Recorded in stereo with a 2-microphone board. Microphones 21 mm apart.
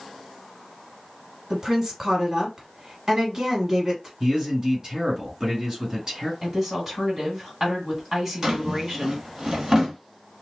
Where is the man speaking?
40° right (ahead or behind), 2 m.